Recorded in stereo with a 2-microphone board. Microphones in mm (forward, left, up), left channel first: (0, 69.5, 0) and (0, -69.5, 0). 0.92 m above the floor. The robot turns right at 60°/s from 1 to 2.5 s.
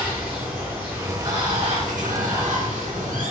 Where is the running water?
165° right, 1.1 m; by 3.3 s 75° right, 1.1 m.